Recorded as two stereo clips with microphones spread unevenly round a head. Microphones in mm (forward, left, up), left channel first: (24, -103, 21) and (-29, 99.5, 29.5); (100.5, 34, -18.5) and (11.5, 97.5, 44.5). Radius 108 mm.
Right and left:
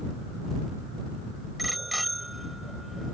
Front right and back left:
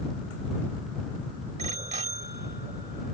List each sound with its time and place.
1.6 s a bicycle bell: 165° right